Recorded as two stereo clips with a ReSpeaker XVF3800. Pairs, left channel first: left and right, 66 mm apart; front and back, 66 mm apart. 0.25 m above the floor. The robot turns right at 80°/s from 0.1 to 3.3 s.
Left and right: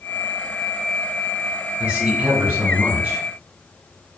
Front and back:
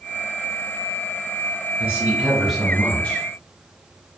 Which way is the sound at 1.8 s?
145° right.